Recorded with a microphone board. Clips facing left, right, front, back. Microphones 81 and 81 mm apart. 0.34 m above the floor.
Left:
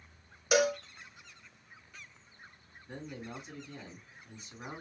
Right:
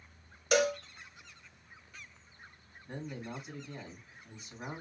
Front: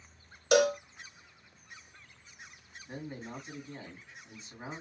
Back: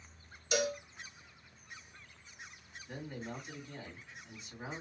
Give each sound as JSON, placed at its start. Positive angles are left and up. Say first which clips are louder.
{"t": 0.5, "sound": "a cowbell", "louder": "left 1 dB, front 9 dB", "azimuth_deg": 5, "distance_m": 0.5}
{"t": 2.9, "sound": "a man speaking", "louder": "right 2 dB, front 1 dB", "azimuth_deg": -65, "distance_m": 2.5}